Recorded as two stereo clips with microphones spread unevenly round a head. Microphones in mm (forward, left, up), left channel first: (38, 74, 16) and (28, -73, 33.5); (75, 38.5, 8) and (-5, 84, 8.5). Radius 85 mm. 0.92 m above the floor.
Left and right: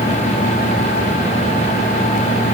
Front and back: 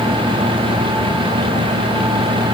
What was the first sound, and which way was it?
Only background noise.